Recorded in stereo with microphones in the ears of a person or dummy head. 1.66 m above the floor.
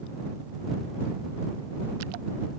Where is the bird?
I don't hear a bird.